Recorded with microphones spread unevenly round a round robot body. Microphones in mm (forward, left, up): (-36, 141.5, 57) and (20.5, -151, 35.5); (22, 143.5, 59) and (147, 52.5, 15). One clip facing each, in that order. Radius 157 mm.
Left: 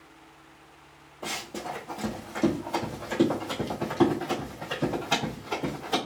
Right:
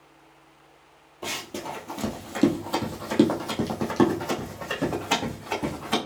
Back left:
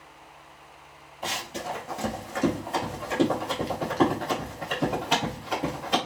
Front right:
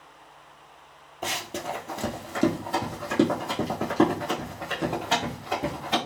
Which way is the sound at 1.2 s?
10° right.